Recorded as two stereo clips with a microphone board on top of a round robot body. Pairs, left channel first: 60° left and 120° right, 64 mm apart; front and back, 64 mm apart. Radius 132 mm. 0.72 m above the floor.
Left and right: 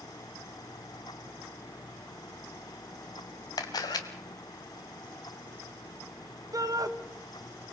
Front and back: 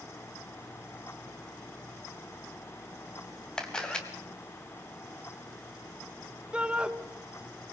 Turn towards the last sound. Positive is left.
turn(degrees=-110)